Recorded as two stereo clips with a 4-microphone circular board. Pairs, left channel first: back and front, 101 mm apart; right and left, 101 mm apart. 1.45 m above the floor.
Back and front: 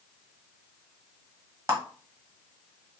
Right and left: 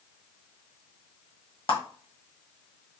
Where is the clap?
55° right, 1.1 m.